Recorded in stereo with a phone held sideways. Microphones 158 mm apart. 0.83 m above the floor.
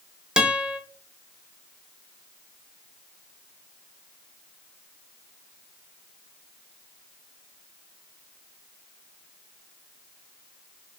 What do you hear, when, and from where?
0.4 s a guitar: 5° right (ahead or behind), 0.6 m